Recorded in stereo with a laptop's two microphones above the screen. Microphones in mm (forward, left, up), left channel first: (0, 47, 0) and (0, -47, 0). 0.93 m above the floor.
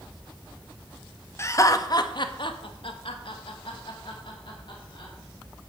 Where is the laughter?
30° left (ahead or behind), 1.3 m; by 5.1 s 55° left (ahead or behind), 2.5 m.